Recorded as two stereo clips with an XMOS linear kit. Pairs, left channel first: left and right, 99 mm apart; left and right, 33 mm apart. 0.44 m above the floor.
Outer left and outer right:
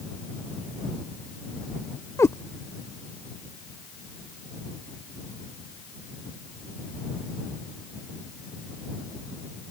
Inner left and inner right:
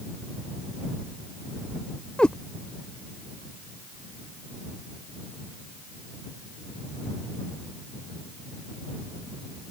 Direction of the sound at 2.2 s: 30° left (ahead or behind).